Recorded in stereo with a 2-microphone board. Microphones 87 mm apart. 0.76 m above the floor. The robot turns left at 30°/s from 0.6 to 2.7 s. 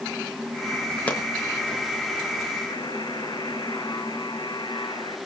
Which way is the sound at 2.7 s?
55° left (ahead or behind).